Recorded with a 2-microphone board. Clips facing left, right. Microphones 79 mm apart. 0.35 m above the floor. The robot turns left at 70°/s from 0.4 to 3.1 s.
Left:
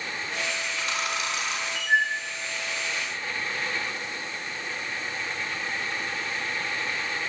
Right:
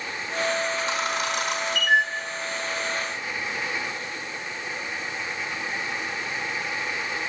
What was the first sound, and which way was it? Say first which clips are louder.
A camera shutter: right 3 dB; 15° right (ahead or behind).